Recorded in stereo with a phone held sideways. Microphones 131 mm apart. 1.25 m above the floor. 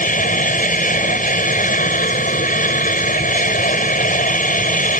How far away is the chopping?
No chopping in this recording.